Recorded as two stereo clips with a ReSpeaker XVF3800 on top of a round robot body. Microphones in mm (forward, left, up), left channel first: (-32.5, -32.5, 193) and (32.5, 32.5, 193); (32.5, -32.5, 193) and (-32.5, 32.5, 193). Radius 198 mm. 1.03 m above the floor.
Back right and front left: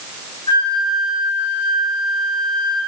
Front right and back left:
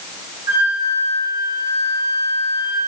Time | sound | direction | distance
0.5 | a flute | 170° right | 5 m